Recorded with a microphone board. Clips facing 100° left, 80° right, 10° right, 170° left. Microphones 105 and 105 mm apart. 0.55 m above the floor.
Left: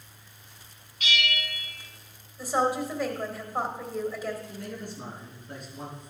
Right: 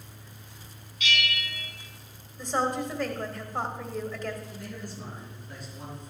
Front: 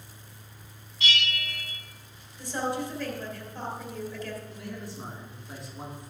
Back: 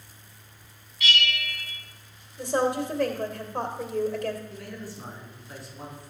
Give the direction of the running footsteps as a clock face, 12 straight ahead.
No running footsteps in this recording.